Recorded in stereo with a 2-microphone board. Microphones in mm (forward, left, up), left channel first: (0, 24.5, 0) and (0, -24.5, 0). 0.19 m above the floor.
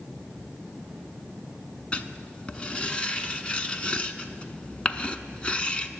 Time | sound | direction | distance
1.9 | writing | 25° left (ahead or behind) | 0.5 m